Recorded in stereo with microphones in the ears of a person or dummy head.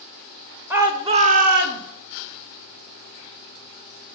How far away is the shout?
About 0.9 m.